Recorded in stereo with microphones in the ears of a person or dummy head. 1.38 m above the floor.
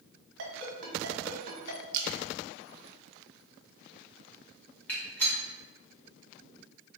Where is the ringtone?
70° right (ahead or behind), 1.1 m.